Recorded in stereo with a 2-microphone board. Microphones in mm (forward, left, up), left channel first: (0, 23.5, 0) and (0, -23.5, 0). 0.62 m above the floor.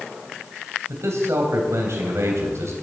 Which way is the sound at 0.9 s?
75° right (ahead or behind).